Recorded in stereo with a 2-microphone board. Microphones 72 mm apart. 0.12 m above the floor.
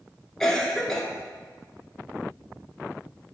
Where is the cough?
5° left (ahead or behind), 1.3 m.